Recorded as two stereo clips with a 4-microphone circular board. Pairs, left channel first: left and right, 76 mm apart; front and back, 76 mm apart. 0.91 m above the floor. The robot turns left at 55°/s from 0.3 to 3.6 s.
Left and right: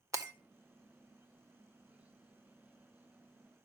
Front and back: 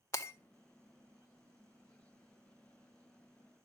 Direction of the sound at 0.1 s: 45° right.